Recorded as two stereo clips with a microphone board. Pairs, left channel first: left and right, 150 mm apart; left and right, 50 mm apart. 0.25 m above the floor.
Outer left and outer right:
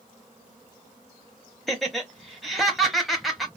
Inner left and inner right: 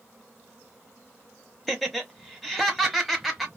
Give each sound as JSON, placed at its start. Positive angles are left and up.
{"t": 1.7, "sound": "laughter", "side_deg": 0, "distance_m": 1.0}